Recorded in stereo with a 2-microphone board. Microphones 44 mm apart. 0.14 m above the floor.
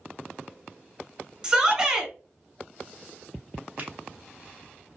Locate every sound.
1.4 s a shout: 15° right (ahead or behind), 1.1 m
3.8 s a finger snap: 30° right (ahead or behind), 1.1 m